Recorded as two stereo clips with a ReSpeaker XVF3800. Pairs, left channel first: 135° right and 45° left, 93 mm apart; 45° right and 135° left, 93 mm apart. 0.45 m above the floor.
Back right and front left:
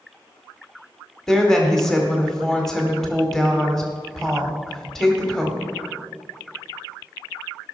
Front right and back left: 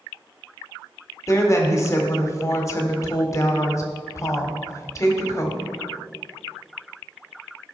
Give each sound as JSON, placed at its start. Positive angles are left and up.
{"t": 1.3, "sound": "a woman speaking", "azimuth_deg": -55, "distance_m": 1.5}